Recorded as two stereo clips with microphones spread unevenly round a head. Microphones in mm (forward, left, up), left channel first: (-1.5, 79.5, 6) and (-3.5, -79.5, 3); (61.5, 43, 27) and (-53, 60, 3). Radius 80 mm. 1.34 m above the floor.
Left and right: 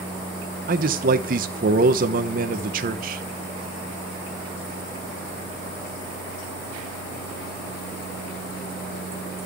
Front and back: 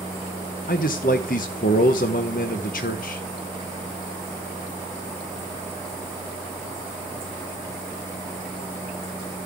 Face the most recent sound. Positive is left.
turn(degrees=-50)